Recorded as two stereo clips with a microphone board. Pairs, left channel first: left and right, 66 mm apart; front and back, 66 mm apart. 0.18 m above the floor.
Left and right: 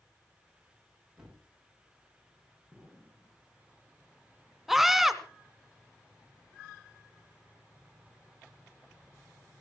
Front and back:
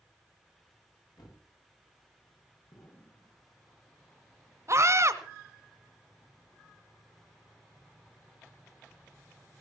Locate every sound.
1.2 s a thud: 5° right, 8 m
2.7 s an explosion: 5° left, 7 m
4.7 s a scream: 175° right, 1.4 m